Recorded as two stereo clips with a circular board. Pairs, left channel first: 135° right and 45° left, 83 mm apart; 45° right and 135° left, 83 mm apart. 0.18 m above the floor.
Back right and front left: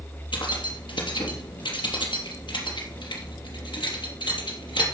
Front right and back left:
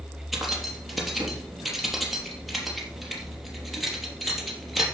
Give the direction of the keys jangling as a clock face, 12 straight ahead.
5 o'clock.